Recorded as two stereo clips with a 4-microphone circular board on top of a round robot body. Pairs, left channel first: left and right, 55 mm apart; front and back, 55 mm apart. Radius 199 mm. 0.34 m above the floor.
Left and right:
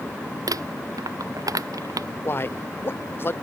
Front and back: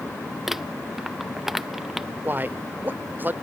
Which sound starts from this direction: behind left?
A man speaking, at 2.2 s.